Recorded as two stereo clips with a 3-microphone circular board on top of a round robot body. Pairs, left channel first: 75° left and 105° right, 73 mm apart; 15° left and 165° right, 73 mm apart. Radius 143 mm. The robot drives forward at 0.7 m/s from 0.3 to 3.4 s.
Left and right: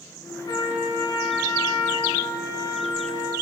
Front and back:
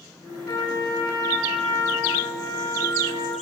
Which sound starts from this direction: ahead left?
A trumpet, at 0.5 s.